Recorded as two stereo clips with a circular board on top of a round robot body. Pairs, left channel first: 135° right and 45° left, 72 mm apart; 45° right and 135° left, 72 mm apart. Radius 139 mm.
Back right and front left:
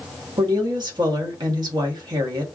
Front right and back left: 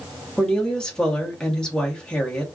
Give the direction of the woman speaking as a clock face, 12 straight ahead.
11 o'clock.